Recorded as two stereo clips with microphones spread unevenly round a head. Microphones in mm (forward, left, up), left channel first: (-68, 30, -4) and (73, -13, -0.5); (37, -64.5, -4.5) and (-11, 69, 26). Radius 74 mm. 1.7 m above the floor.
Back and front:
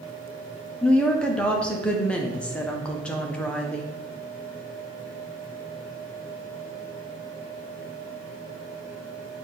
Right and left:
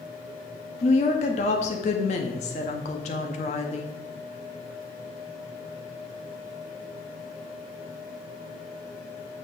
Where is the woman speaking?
115° right, 0.8 m.